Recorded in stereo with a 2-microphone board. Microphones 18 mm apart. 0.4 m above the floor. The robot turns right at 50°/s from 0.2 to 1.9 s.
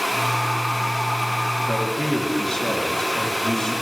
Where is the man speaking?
45° left (ahead or behind), 2.5 m; by 3.7 s 35° left (ahead or behind), 2.5 m.